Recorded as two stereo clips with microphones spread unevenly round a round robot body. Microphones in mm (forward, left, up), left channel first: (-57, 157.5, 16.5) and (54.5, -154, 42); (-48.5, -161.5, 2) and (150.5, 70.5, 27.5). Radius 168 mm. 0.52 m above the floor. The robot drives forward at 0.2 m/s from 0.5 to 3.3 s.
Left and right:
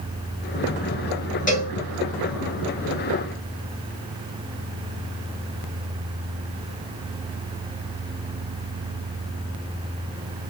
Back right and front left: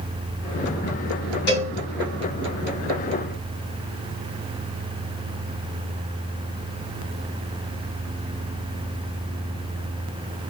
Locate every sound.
1.5 s a cowbell: 175° left, 1.7 m